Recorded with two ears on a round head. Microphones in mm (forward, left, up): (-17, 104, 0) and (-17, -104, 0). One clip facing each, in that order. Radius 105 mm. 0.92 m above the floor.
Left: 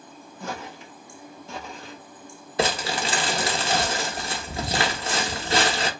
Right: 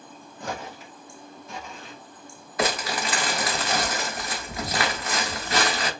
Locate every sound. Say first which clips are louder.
0.4 s footsteps: right 1 dB; 15° right (ahead or behind), 1.6 m; by 2.0 s 35° left (ahead or behind), 1.3 m
2.6 s crumpling: left 1 dB; 25° left (ahead or behind), 0.6 m